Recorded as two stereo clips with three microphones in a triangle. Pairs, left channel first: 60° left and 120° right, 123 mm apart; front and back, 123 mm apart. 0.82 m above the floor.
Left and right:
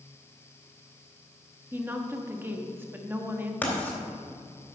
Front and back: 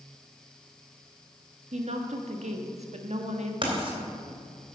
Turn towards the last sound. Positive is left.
turn(degrees=135)